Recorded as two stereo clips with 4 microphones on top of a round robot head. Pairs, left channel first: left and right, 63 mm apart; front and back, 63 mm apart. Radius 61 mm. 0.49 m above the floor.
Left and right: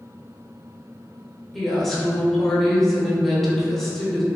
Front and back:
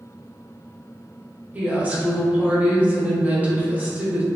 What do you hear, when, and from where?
1.5 s a woman speaking: 170° left, 0.9 m